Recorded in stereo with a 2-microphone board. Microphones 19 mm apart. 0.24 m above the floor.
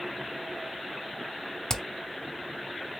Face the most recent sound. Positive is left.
turn(degrees=25)  # may be behind; listen again after turning